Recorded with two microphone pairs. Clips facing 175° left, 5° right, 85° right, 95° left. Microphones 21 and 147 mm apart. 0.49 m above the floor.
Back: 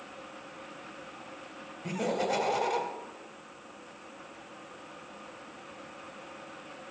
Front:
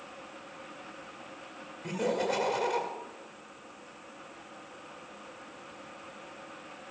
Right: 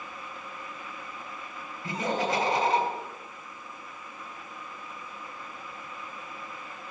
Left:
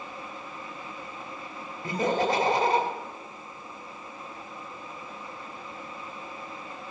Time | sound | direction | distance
1.8 | laughter | 55° left | 1.7 m